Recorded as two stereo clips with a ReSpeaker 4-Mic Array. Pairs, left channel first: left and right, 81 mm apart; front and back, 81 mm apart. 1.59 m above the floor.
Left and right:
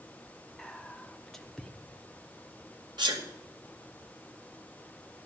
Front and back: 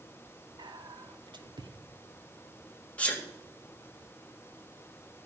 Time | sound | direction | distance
0.6 | whispering | 175° left | 1.1 m
3.0 | a sneeze | 70° right | 2 m